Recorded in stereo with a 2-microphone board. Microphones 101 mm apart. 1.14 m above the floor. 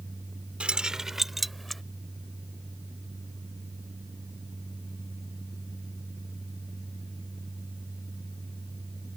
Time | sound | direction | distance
0.6 | keys jangling | 10° right (ahead or behind) | ?